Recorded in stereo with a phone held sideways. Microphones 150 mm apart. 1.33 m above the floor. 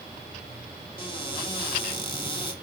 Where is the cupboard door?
30° left (ahead or behind), 2.5 m.